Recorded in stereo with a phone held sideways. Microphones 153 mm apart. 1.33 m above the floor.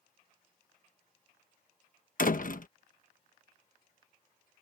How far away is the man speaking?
I don't hear a man speaking.